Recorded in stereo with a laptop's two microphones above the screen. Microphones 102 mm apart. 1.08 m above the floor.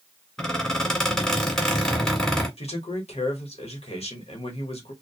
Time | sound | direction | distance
0.4 | a squeak | 5° left (ahead or behind) | 1.6 m
2.6 | a man speaking | 80° left | 1.0 m